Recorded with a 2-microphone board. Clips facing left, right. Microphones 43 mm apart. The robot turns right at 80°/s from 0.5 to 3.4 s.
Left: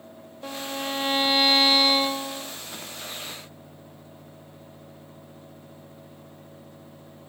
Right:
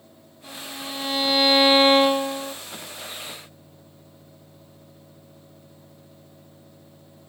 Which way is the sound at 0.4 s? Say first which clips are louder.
Left 4 dB; 105° left.